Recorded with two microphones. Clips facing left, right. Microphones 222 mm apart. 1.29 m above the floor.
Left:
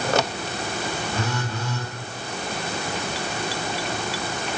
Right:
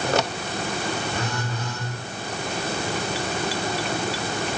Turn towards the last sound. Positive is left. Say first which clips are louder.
# left 1 dB
turn(degrees=10)  # may be behind; listen again after turning